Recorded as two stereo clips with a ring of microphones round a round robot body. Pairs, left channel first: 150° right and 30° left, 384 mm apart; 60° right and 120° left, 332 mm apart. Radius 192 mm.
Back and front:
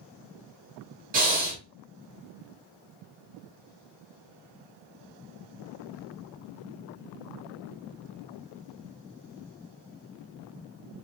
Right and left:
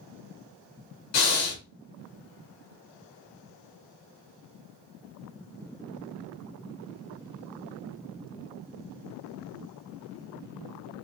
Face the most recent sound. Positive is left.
turn(degrees=-30)